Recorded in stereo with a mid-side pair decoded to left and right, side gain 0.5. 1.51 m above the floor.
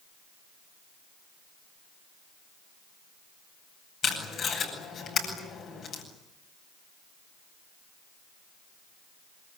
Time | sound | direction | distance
4.0 | tape being pulled | 55° left | 9.5 m